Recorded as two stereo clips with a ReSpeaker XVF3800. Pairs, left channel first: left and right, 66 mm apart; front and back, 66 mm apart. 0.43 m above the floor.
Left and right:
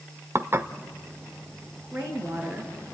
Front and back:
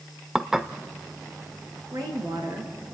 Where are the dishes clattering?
100° right, 0.8 m.